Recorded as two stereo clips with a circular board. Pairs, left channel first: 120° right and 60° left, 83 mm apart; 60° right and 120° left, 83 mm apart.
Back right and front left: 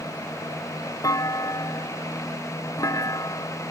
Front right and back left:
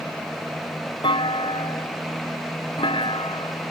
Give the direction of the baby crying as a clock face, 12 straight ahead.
I don't hear a baby crying.